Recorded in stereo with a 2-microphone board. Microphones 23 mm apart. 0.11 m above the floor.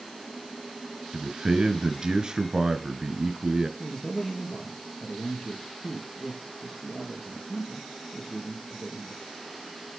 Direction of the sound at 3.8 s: 20° left (ahead or behind).